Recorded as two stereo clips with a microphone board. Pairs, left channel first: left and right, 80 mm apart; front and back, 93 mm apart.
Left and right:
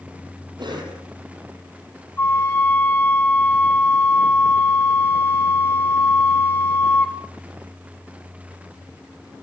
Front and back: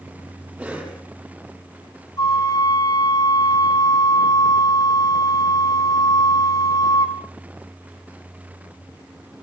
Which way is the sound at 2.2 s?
35° left.